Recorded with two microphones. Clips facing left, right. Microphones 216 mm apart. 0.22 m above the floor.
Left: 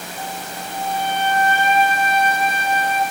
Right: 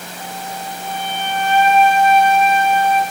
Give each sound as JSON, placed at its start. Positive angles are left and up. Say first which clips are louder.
{"t": 0.2, "sound": "a flute", "louder": "right 2 dB", "side_deg": -85, "distance_m": 0.9}